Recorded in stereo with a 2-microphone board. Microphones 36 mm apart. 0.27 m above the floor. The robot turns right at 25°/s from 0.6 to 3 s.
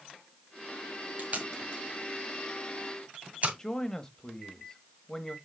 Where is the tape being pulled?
40° right (ahead or behind), 2 m; by 3.5 s 45° right (ahead or behind), 2 m.